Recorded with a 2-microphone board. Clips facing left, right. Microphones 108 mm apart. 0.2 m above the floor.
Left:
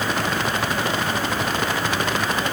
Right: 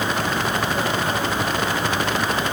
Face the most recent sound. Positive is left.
No sound to turn to.